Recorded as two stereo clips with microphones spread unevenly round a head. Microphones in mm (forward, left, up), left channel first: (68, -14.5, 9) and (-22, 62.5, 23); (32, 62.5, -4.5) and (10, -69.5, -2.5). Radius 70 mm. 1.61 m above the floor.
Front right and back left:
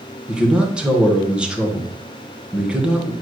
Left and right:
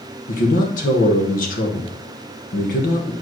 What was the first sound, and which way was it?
A man speaking, 60° left.